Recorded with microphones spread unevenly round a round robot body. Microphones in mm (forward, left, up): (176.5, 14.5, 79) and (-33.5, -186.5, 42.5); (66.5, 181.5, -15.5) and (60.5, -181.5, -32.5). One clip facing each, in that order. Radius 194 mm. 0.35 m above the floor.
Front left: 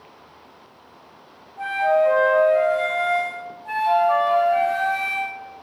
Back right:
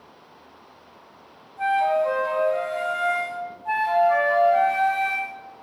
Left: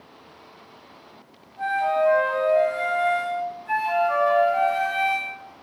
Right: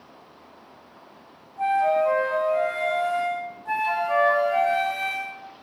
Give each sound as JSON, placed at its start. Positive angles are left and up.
{"t": 1.6, "sound": "a flute", "azimuth_deg": -150, "distance_m": 1.6}
{"t": 3.6, "sound": "a flute", "azimuth_deg": -5, "distance_m": 1.7}